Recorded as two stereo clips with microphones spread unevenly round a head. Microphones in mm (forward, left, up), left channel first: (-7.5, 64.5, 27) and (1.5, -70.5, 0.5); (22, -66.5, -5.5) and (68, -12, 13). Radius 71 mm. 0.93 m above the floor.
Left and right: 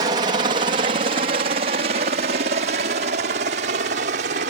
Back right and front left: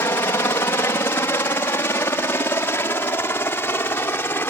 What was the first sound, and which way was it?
A helicopter, 105° right.